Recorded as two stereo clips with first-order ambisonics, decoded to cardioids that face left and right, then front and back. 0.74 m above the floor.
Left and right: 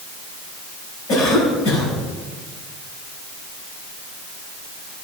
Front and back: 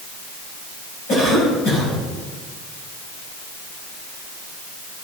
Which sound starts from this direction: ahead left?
A cough, at 1.1 s.